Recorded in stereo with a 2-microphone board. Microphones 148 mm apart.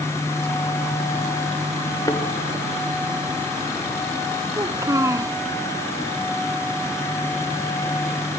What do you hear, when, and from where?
2.1 s a thud: 25° left (ahead or behind), 3 m
4.5 s a child speaking: 20° right (ahead or behind), 1.1 m